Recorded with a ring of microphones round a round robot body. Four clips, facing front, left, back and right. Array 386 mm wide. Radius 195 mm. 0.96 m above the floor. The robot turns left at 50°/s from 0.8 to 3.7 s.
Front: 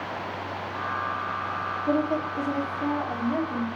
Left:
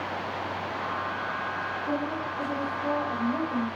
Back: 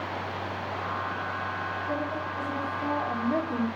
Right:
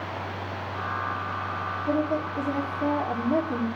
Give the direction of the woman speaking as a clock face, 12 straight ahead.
1 o'clock.